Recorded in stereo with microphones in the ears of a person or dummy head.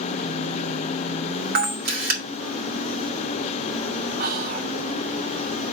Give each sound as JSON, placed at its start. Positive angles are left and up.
{"t": 1.6, "sound": "a camera shutter", "side_deg": -50, "distance_m": 2.0}
{"t": 4.2, "sound": "whispering", "side_deg": -50, "distance_m": 1.0}